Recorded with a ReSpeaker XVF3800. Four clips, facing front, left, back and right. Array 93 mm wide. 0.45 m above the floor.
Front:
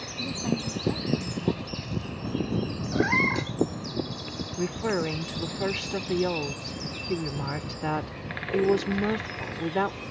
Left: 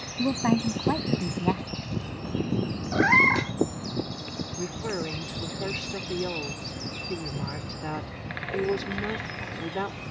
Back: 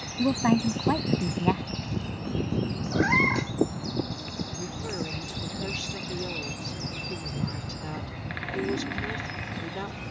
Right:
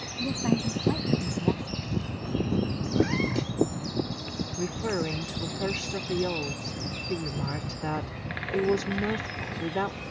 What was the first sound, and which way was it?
A woman speaking, 145° left.